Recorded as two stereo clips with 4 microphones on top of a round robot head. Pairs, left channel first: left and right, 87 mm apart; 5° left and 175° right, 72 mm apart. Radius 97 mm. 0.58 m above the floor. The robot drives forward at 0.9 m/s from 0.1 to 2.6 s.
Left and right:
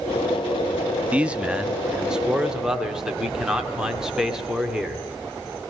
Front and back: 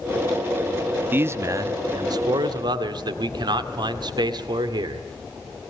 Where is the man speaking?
150° right, 0.9 m; by 5.0 s 175° right, 1.9 m.